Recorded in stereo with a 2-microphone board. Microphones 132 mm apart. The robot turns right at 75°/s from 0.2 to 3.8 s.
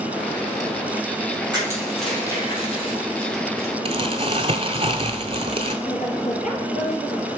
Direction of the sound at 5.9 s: 60° left (ahead or behind).